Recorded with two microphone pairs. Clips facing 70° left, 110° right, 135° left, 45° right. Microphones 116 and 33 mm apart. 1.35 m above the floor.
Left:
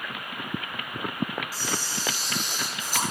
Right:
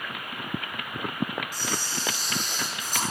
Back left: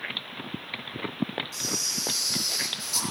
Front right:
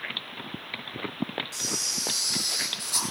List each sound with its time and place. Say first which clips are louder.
1.5 s a camera shutter: even, even; 10° right, 9.5 m